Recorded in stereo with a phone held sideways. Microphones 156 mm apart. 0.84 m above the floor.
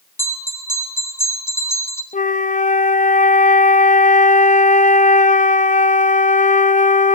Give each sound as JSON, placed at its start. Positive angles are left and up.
{"t": 0.2, "sound": "a bell", "side_deg": 15, "distance_m": 3.5}
{"t": 2.1, "sound": "a flute", "side_deg": 55, "distance_m": 0.5}